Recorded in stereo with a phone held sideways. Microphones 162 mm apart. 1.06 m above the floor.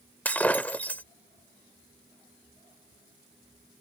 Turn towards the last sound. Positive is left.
turn(degrees=10)  # may be behind; listen again after turning